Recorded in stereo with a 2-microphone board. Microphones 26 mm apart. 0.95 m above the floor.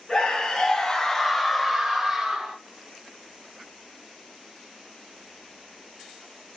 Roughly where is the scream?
Left.